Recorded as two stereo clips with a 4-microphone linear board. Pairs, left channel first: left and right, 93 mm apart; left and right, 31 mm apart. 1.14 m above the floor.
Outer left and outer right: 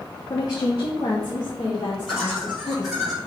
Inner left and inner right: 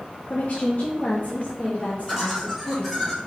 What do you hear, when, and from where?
0.3 s a woman speaking: 50° left (ahead or behind), 0.5 m; by 3.1 s 55° left (ahead or behind), 2 m
2.1 s laughter: 5° right (ahead or behind), 2 m